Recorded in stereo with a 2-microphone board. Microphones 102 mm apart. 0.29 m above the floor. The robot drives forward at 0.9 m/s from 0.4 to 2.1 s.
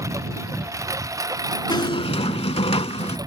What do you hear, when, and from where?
0.0 s a lawn mower: 30° right (ahead or behind); by 3.3 s 35° right (ahead or behind)
1.7 s a squeak: 45° left (ahead or behind); by 3.2 s 70° left (ahead or behind)